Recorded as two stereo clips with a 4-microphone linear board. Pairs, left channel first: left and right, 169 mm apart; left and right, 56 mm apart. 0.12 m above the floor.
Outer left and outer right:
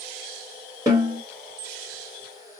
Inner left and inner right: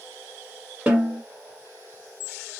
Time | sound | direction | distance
0.9 | a snare drum | 20° right (ahead or behind) | 1.5 m